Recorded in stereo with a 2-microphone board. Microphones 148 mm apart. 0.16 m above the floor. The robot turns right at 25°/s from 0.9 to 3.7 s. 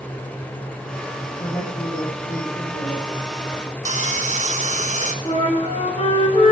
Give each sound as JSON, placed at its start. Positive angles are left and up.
{"t": 1.4, "sound": "a woman speaking", "azimuth_deg": 85, "distance_m": 3.0}
{"t": 3.9, "sound": "sawing", "side_deg": -50, "distance_m": 0.6}
{"t": 5.2, "sound": "a flute", "side_deg": 45, "distance_m": 1.6}